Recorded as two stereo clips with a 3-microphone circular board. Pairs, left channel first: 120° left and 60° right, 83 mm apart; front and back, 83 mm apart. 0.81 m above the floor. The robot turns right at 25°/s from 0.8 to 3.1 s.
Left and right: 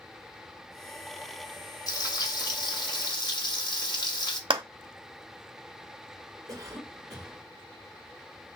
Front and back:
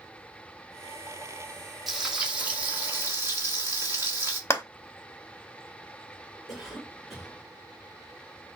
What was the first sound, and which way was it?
Frying, 95° left.